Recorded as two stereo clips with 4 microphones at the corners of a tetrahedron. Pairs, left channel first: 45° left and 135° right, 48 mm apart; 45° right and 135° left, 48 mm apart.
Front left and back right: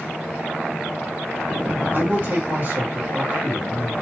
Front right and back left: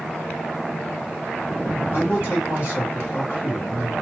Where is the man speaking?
85° right, 1.3 m.